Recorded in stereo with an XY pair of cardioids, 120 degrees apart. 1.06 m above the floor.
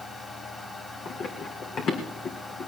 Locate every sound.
0.0 s a fan: 20° left, 3 m
1.1 s running footsteps: 50° left, 3.5 m